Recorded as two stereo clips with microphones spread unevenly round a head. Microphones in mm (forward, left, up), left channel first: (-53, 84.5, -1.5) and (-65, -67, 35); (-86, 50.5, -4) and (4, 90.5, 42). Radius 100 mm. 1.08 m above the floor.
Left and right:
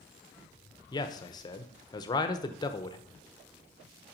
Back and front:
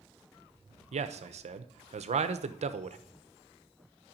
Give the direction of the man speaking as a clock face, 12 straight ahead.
11 o'clock.